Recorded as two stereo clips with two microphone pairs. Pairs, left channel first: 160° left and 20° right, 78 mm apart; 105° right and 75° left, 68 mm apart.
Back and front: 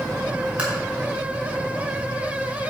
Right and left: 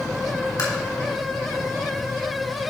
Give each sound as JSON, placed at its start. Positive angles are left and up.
{"t": 0.6, "sound": "tapping", "azimuth_deg": -95, "distance_m": 1.9}